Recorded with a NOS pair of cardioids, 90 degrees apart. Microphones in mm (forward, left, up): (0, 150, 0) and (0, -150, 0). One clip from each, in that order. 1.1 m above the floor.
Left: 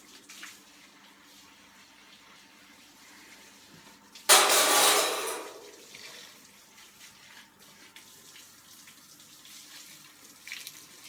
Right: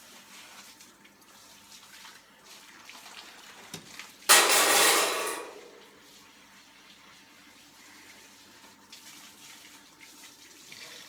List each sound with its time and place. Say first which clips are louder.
4.3 s crushing: even; straight ahead, 1.0 m